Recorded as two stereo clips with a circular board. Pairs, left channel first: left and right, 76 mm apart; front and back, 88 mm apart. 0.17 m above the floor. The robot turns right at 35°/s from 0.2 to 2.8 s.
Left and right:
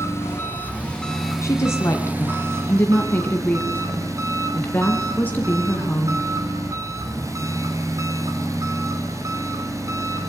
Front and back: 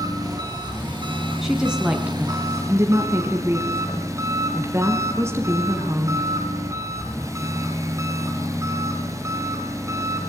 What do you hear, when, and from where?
0.0 s an engine running: 140° left, 3 m; by 10.3 s 130° right, 3 m
1.4 s a woman speaking: 95° left, 1.7 m; by 6.2 s 140° left, 1.7 m